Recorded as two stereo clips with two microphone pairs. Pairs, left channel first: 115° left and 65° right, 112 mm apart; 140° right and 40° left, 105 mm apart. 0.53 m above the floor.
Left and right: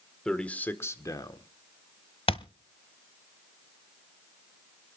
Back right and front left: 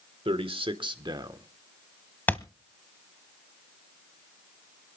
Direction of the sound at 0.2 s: 35° left.